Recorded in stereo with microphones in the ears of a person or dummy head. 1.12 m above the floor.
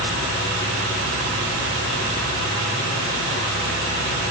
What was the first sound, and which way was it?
Only background noise.